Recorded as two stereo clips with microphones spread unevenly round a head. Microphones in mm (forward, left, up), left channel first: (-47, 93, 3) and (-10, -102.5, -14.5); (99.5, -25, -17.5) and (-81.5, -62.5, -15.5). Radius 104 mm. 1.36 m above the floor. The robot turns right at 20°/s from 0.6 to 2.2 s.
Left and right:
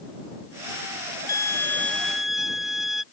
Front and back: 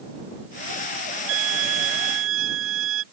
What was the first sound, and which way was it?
A violin, 175° left.